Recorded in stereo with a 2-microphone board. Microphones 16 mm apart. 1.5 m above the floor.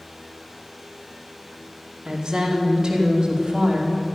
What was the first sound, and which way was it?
A woman speaking, 70° right (ahead or behind).